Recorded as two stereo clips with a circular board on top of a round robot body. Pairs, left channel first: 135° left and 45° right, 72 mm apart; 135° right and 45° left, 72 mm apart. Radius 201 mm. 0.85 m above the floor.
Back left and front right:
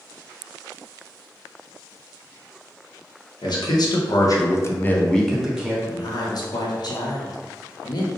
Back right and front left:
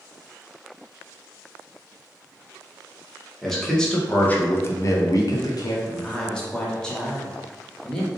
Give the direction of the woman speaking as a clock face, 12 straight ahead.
7 o'clock.